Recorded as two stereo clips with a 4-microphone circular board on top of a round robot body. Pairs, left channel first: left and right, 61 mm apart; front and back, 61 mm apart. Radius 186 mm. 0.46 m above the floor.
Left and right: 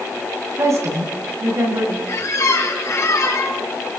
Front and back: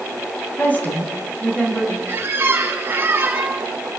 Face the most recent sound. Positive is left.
turn(degrees=130)